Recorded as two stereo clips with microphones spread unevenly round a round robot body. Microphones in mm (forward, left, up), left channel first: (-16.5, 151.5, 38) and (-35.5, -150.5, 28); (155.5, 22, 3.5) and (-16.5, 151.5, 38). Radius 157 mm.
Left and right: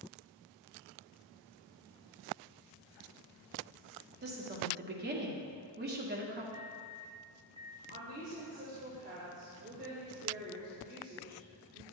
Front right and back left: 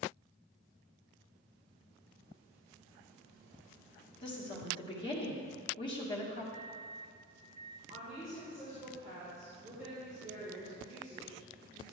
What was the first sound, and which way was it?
A woman speaking, 75° right.